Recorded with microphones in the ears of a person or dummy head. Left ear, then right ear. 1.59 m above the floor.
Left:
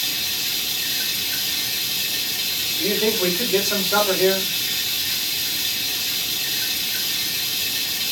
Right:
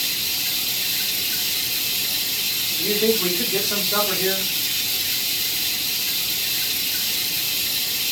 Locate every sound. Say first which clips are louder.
0.0 s running water: even; 10° right (ahead or behind), 0.9 m
2.8 s a man speaking: even; 20° left (ahead or behind), 1.0 m